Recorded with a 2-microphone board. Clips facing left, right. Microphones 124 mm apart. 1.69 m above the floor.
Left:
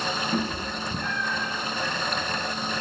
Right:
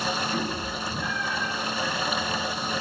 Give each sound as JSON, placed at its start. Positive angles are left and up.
{"t": 0.3, "sound": "a cat meowing", "side_deg": 45, "distance_m": 2.0}